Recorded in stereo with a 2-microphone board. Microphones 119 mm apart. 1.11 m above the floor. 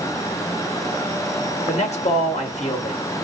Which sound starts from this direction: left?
A man speaking, at 1.7 s.